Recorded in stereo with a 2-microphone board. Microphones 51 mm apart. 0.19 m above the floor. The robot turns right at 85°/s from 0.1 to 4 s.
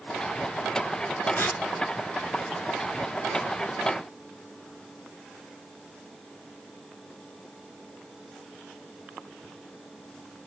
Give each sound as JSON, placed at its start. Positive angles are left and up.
{"t": 1.4, "sound": "tearing paper", "side_deg": 50, "distance_m": 2.0}